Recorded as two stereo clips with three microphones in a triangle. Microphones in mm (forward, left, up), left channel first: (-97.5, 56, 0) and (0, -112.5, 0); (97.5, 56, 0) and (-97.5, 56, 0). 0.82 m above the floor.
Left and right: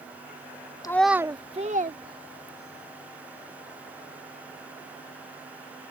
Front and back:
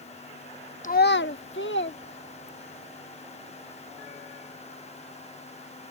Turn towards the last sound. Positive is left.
turn(degrees=-30)